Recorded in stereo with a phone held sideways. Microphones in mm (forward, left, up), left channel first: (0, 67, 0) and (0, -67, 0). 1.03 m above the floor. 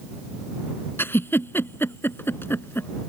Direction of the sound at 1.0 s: 15° left (ahead or behind).